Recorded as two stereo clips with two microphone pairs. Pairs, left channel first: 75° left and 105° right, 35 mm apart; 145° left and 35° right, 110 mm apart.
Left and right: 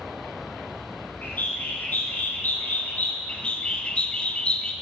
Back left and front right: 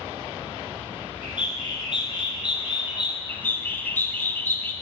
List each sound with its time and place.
1.2 s a bird: 110° left, 2.0 m
3.3 s a bird: 90° left, 0.9 m